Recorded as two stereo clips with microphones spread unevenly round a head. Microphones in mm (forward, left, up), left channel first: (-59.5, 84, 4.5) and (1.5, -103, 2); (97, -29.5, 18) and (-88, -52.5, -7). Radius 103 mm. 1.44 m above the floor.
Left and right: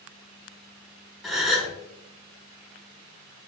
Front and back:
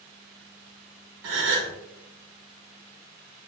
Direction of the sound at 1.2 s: 160° right.